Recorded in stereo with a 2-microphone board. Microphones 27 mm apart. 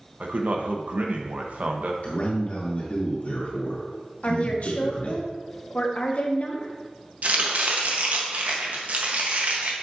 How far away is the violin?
No violin in this recording.